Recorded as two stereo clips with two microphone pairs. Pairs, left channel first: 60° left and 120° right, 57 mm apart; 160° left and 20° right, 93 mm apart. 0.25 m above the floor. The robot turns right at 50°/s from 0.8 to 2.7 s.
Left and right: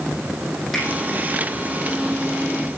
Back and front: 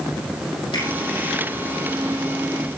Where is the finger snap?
145° left, 7 m; by 0.9 s 150° left, 7 m.